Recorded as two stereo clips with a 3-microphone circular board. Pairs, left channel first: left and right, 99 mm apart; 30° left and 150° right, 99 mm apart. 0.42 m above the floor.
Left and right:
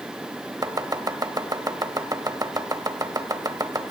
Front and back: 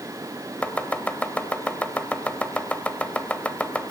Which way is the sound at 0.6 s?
45° right.